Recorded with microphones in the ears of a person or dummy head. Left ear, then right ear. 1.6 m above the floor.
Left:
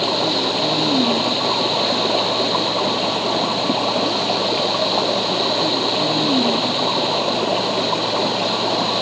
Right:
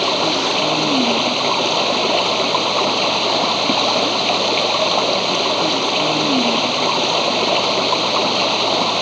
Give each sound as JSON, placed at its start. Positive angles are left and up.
{"t": 0.0, "sound": "running water", "side_deg": -55}